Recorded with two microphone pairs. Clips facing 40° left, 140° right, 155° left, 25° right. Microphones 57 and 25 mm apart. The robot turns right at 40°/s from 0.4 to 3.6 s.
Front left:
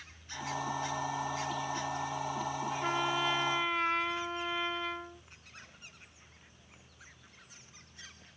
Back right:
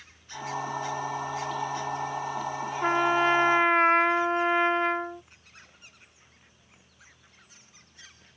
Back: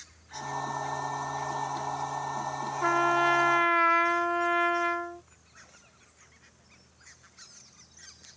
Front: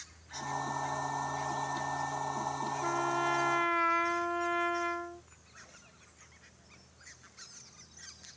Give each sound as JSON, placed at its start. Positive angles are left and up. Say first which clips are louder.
{"t": 2.8, "sound": "a trumpet", "louder": "back right 10 dB, back 9 dB", "azimuth_deg": 175}